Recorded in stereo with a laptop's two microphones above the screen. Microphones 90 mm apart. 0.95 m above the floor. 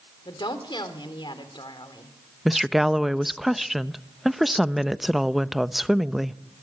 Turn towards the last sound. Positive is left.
turn(degrees=0)  # may be behind; listen again after turning